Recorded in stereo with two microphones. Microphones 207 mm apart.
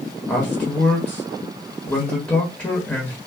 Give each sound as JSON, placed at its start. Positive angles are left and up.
{"t": 0.3, "sound": "a man speaking", "side_deg": 10, "distance_m": 1.2}